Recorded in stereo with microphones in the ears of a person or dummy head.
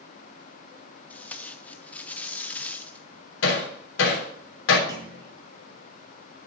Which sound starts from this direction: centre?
Tape being pulled, at 1.1 s.